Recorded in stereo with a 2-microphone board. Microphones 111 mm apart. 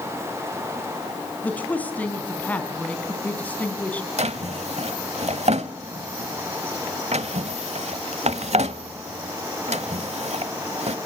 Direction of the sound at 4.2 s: 75° right (ahead or behind).